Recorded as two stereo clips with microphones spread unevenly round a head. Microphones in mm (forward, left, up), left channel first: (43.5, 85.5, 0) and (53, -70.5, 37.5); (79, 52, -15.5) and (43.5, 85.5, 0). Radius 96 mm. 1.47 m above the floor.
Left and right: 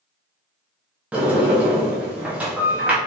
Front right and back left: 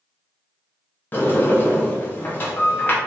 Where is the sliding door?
85° right, 0.8 m.